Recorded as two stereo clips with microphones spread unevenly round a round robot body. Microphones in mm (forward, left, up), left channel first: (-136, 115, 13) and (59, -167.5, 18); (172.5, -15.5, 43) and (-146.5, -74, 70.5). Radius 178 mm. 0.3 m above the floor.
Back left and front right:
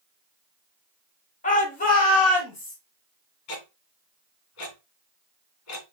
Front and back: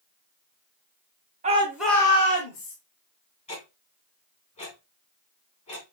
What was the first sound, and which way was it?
A shout, 145° left.